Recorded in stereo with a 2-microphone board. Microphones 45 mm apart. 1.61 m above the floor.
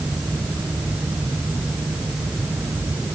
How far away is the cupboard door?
I don't hear a cupboard door.